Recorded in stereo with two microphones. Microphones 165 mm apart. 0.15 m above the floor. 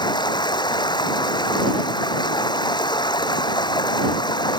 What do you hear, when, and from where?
0.0 s running water: 25° left (ahead or behind)